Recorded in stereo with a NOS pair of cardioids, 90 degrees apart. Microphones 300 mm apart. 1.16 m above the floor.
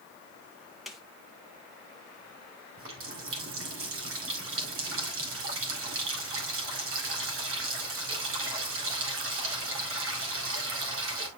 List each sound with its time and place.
0.9 s a snare drum: straight ahead, 2.5 m
2.8 s a running tap: 45° right, 4.5 m